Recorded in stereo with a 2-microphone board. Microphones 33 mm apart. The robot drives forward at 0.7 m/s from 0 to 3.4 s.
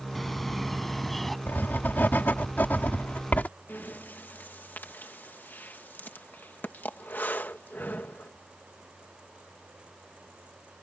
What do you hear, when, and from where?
0.1 s a bird: 5° left (ahead or behind)
1.5 s writing: 85° left; by 3.5 s 60° left (ahead or behind)
3.7 s breathing: 70° left (ahead or behind)